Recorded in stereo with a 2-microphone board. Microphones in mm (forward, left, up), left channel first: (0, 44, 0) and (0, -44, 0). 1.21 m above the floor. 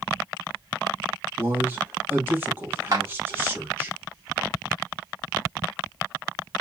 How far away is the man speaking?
About 1.4 m.